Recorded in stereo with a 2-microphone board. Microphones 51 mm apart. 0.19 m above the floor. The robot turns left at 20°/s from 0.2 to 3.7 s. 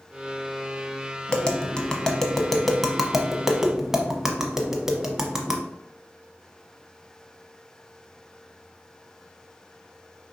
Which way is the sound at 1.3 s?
20° left (ahead or behind).